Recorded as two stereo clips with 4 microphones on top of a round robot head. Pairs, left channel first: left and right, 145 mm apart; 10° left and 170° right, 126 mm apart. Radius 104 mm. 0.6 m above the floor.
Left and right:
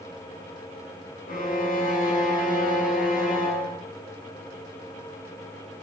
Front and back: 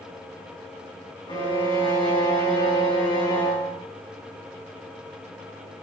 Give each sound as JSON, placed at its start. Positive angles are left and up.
{"t": 1.3, "sound": "a violin", "azimuth_deg": 65, "distance_m": 4.5}